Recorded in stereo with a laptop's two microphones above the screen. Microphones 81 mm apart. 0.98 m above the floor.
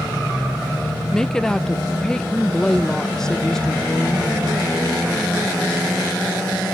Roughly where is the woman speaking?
Centre.